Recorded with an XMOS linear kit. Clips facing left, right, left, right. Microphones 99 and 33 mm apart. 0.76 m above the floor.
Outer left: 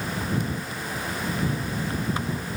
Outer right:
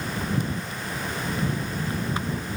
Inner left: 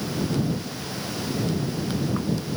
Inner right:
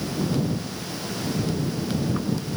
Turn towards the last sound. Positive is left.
No sound to turn to.